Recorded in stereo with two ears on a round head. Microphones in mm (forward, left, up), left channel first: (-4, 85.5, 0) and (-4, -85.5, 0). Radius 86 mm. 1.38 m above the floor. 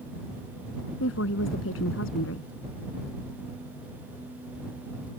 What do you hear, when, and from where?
1.0 s a woman speaking: 80° left